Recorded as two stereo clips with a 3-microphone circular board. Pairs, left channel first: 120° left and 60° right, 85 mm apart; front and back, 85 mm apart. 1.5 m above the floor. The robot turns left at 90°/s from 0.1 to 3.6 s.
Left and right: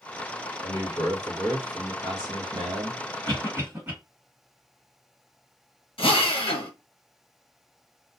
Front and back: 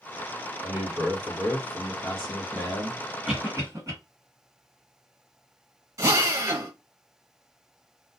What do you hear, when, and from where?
0.6 s a man speaking: 125° left, 1.1 m; by 3.0 s 90° right, 1.1 m
3.2 s a cough: 95° right, 1.5 m; by 3.9 s 125° right, 1.5 m
6.0 s a drill: 125° left, 0.8 m